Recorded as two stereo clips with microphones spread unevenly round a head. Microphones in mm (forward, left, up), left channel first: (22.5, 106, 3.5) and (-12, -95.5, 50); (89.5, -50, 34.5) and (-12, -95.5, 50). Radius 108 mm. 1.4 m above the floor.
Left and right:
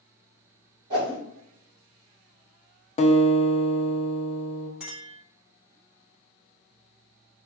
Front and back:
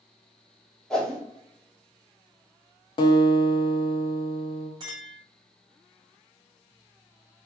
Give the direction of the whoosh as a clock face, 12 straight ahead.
2 o'clock.